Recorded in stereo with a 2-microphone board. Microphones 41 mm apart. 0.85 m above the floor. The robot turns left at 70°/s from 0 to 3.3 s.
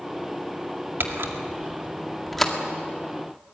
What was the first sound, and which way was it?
A camera shutter, 70° right (ahead or behind).